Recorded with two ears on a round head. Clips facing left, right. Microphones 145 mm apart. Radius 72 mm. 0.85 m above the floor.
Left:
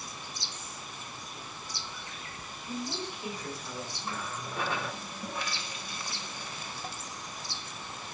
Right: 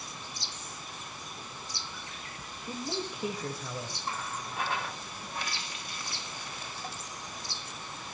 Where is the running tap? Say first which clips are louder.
Left 1 dB; 75° left (ahead or behind), 0.8 m.